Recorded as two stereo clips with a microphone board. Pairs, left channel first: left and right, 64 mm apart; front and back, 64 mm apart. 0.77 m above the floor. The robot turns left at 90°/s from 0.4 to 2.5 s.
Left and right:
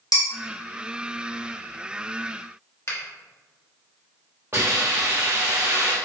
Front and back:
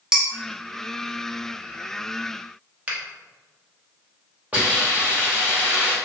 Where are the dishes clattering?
100° left, 0.7 m.